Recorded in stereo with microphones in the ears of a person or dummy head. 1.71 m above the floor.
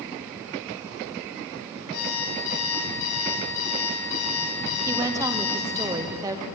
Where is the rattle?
No rattle in this recording.